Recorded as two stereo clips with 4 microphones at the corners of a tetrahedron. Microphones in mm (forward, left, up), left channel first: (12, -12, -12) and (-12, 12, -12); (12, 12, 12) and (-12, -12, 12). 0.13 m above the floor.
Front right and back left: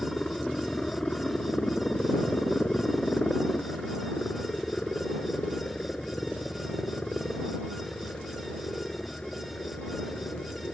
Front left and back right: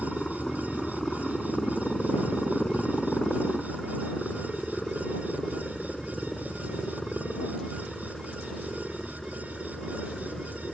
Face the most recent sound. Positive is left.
turn(degrees=-30)